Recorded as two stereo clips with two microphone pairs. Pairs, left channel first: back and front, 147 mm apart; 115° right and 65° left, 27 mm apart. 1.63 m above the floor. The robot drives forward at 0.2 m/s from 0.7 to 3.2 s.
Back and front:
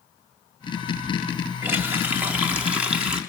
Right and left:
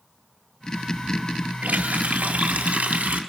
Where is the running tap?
70° left, 2.5 m; by 3.2 s 80° left, 2 m.